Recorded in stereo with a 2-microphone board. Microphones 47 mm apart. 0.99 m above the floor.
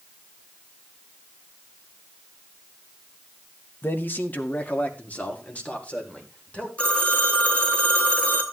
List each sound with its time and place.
3.8 s a man speaking: 50° left (ahead or behind), 1.2 m; by 6.7 s 30° left (ahead or behind), 4.5 m
6.8 s a phone ringing: 30° left (ahead or behind), 2 m